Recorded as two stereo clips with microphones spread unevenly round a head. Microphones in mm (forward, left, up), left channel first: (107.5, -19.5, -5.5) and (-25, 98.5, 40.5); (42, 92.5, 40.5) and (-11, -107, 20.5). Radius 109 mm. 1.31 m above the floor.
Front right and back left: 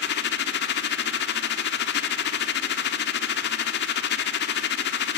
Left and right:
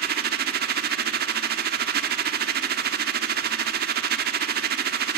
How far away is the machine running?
About 1.0 m.